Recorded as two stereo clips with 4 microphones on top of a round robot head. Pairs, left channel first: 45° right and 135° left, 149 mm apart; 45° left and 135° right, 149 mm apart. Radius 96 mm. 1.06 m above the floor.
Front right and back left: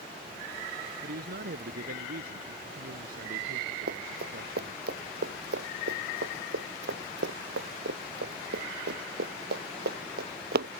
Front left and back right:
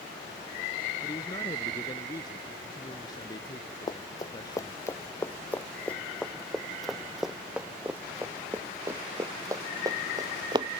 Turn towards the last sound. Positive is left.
turn(degrees=160)